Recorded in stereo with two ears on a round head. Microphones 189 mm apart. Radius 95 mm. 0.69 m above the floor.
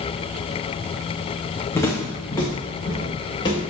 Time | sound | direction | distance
1.8 | footsteps | 10° left (ahead or behind) | 3.5 m